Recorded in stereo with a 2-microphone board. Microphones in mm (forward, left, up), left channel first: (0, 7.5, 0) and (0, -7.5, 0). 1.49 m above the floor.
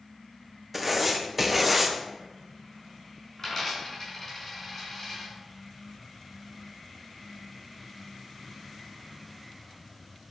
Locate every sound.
0.7 s writing: centre (ahead or behind), 0.9 m
3.4 s a dropped coin: 10° left (ahead or behind), 4.5 m